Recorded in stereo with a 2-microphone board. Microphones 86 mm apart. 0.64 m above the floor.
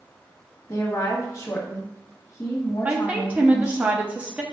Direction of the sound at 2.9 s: 15° right (ahead or behind).